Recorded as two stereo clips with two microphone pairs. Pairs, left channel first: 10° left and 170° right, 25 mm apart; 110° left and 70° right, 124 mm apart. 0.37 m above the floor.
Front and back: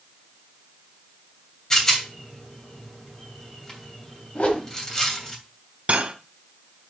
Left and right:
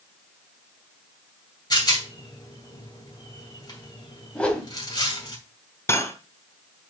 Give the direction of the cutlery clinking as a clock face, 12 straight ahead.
6 o'clock.